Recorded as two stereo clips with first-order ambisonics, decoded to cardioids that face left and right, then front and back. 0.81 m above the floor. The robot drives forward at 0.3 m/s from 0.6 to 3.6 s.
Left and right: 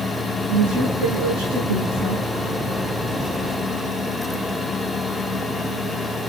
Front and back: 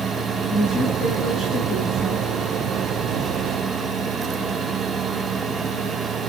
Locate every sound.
0.5 s a woman speaking: 80° right, 9 m; by 2.2 s 85° right, 8.5 m